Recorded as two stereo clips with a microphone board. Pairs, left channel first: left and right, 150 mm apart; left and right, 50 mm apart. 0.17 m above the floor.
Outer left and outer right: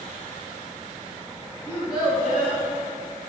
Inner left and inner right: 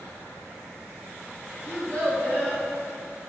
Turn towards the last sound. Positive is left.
turn(degrees=30)  # may be behind; listen again after turning